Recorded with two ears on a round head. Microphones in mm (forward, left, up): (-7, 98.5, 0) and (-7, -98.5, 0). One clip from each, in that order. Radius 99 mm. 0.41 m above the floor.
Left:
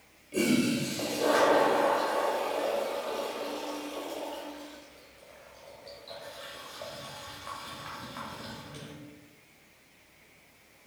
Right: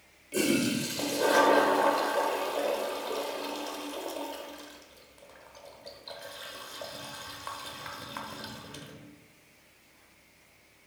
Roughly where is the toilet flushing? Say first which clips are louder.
Even; right.